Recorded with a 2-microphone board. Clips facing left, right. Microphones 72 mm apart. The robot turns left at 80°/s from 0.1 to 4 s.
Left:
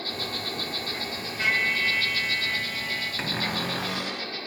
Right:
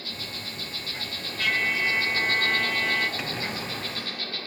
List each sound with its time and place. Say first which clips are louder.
0.0 s an insect: left 5 dB; 110° left, 1.5 m; by 4.5 s 160° left, 1.5 m
1.4 s a trumpet: even; 25° left, 1.3 m; by 3.1 s 110° right, 1.3 m
3.2 s a cupboard door: left 2 dB; 150° left, 0.8 m; by 4.3 s 85° left, 0.8 m